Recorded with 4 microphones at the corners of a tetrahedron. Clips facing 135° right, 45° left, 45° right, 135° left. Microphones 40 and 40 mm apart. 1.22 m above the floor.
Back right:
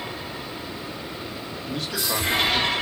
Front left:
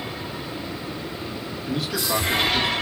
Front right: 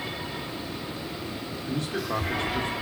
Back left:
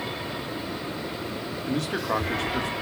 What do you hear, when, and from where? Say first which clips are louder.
1.7 s a man speaking: front left 3 dB, back left 3 dB; 135° left, 1.4 m